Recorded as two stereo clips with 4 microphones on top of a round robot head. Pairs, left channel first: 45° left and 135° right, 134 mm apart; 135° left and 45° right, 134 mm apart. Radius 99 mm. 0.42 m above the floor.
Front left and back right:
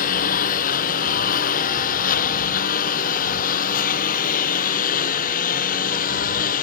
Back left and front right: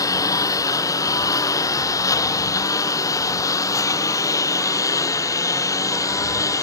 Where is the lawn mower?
70° left; by 6.6 s 65° left.